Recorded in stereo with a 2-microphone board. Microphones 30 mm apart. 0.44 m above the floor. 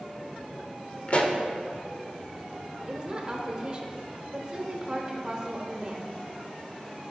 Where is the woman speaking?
25° right (ahead or behind), 1.1 m.